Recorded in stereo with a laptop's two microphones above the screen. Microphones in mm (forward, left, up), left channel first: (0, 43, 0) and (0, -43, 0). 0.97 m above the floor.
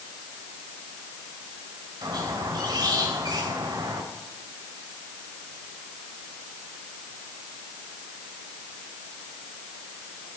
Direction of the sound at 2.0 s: 55° right (ahead or behind).